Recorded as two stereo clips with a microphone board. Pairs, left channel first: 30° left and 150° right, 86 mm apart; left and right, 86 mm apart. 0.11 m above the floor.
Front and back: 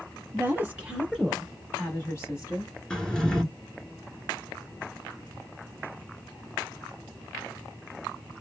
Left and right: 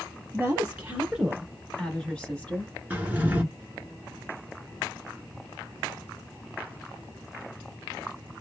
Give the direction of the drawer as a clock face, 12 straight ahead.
1 o'clock.